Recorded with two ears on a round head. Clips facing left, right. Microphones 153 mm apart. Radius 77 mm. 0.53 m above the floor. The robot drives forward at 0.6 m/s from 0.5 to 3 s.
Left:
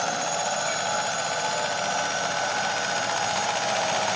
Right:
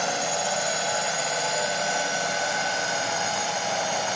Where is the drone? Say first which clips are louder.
Even; 20° right (ahead or behind).